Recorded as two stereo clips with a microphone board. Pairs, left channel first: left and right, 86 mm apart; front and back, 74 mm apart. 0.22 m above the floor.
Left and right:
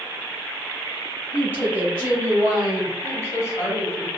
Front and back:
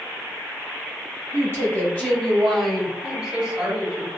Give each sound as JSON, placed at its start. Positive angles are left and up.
{"t": 1.3, "sound": "a woman speaking", "azimuth_deg": -30, "distance_m": 1.4}
{"t": 3.0, "sound": "a woman speaking", "azimuth_deg": 110, "distance_m": 1.1}